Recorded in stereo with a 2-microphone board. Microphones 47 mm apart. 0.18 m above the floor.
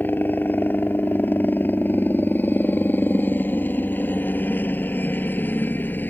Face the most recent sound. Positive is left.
turn(degrees=45)  # may be behind; listen again after turning